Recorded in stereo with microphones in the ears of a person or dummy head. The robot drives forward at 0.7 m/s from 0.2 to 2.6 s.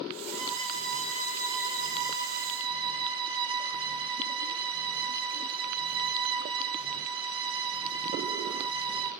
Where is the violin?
15° right (ahead or behind), 6 m; by 9.1 s 20° right (ahead or behind), 4 m.